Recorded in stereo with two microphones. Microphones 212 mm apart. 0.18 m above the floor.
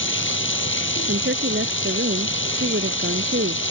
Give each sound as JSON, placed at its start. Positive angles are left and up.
{"t": 0.0, "sound": "running water", "side_deg": 65}
{"t": 1.1, "sound": "a woman speaking", "side_deg": -60}